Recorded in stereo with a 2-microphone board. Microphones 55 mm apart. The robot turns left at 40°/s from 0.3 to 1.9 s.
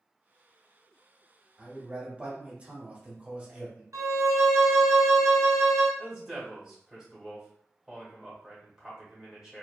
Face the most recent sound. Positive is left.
turn(degrees=-10)  # may be behind; listen again after turning